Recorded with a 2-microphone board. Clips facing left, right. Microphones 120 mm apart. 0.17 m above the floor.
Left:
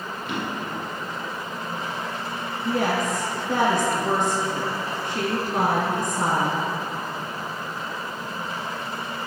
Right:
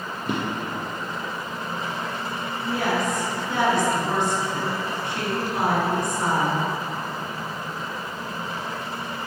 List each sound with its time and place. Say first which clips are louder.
0.2 s a drawer: right 3 dB; 45° right (ahead or behind), 2.5 m
2.6 s a woman speaking: left 1 dB; 50° left (ahead or behind), 2.5 m